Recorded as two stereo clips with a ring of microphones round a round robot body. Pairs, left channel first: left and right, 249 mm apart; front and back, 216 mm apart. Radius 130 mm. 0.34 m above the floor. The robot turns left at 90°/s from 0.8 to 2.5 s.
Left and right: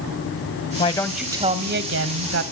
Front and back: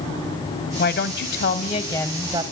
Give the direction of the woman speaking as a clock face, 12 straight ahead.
11 o'clock.